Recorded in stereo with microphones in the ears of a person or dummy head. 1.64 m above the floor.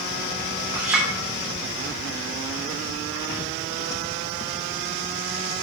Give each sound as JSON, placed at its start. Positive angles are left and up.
{"t": 0.7, "sound": "a clink", "side_deg": -15, "distance_m": 2.5}